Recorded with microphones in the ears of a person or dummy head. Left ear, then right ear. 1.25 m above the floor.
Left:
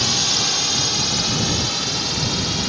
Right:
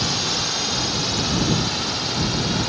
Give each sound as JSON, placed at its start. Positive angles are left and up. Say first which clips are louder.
{"t": 0.0, "sound": "a drone", "louder": "left 4 dB", "side_deg": 15}